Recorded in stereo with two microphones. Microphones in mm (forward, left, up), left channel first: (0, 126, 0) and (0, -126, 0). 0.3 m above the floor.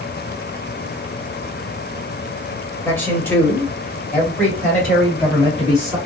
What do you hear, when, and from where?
2.9 s a man speaking: 10° left (ahead or behind), 1.4 m; by 6.0 s centre (ahead or behind), 2 m